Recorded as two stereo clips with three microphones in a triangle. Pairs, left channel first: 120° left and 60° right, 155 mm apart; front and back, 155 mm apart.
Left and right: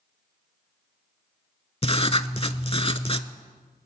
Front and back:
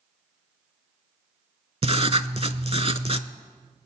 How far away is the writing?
About 0.5 m.